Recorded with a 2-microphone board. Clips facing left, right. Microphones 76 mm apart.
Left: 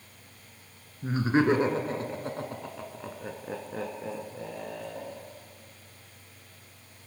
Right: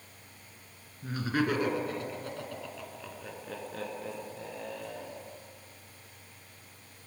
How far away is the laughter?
About 1.6 m.